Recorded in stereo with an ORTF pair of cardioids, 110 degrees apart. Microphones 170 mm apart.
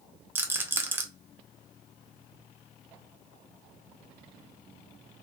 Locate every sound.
0.3 s a rattle: 10° right, 0.5 m